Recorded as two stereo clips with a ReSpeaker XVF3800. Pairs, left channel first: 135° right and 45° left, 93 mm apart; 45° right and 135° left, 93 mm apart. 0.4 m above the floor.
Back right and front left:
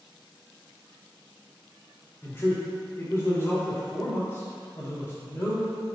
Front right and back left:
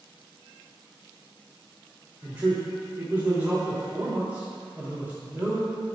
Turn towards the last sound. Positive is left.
turn(degrees=-170)